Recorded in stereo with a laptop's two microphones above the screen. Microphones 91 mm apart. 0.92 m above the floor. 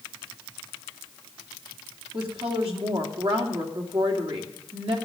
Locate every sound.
2.1 s a woman speaking: 75° right (ahead or behind), 2.5 m